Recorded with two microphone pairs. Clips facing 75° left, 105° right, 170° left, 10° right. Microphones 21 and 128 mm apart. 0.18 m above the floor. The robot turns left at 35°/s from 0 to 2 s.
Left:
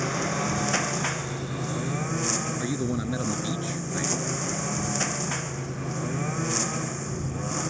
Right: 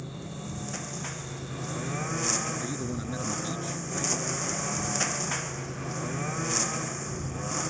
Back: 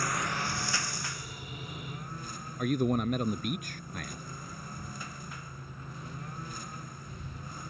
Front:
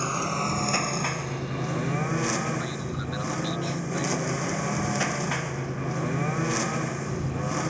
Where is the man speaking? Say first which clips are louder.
Left 5 dB, back 5 dB; 140° left.